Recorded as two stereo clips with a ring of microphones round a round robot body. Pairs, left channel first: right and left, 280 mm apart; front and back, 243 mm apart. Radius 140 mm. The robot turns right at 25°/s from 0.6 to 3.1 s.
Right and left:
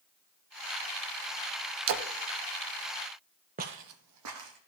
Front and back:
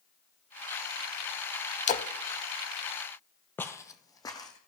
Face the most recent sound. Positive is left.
turn(degrees=75)